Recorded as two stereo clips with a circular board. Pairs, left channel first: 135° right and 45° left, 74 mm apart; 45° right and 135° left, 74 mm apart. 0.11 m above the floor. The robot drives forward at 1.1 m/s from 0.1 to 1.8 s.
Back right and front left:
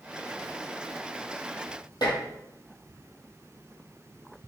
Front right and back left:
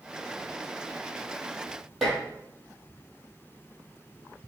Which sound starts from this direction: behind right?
Dishes clattering, at 2.0 s.